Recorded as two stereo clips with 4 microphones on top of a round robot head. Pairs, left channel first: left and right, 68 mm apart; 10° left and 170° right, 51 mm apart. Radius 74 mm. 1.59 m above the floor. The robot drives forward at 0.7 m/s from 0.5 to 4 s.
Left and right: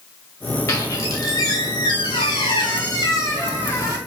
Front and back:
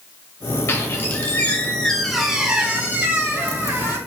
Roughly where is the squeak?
Ahead left.